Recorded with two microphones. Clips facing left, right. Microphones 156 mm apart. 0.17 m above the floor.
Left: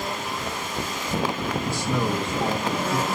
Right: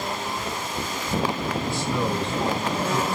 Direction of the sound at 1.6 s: 5° left (ahead or behind).